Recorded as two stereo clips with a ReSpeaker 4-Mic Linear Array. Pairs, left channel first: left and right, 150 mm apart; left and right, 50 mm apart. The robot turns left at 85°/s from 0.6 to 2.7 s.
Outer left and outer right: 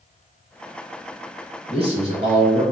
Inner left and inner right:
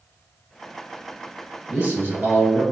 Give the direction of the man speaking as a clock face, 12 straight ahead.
2 o'clock.